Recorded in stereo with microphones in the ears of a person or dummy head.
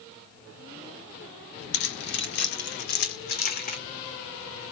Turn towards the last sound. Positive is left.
turn(degrees=50)  # may be behind; listen again after turning